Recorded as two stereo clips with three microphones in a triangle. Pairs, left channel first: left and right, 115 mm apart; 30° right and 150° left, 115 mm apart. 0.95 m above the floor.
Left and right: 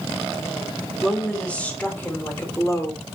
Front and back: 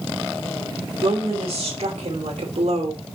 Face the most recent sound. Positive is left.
turn(degrees=145)